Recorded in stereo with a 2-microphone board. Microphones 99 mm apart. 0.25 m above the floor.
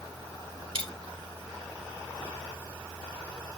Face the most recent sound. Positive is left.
turn(degrees=-65)  # may be behind; listen again after turning